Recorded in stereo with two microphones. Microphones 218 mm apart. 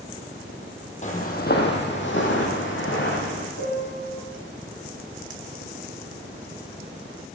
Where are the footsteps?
35° left (ahead or behind), 1.3 m; by 3.5 s 60° left (ahead or behind), 2.5 m.